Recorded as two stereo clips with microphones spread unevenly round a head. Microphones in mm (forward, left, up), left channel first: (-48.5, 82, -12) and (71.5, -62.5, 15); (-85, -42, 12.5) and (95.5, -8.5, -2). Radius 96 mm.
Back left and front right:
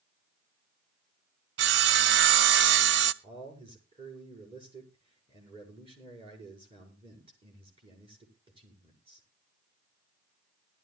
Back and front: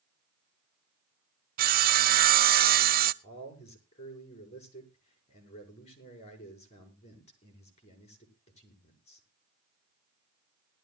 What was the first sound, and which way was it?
Sawing, 30° right.